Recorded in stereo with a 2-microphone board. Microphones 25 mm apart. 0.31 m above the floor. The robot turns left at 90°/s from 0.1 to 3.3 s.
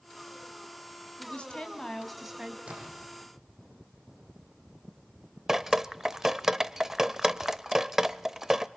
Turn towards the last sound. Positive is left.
turn(degrees=-20)  # may be behind; listen again after turning